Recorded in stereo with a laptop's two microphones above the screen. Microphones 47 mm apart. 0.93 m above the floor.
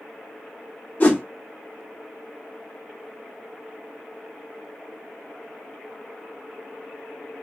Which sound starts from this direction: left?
A whoosh, at 1.0 s.